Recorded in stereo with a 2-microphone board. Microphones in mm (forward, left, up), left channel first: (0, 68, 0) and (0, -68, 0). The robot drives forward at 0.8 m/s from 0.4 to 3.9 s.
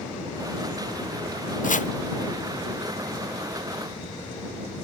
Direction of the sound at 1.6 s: 75° left (ahead or behind).